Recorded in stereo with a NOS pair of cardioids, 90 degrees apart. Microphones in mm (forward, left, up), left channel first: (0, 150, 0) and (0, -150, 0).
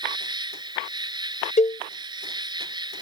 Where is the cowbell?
25° left.